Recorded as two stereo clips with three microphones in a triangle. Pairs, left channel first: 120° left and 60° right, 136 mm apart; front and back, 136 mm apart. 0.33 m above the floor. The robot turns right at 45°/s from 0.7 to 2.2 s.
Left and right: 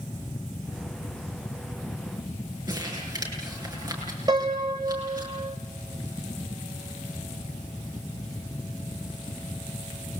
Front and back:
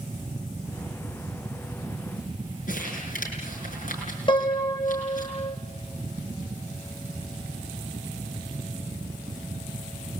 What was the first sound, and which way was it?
Crumpling, straight ahead.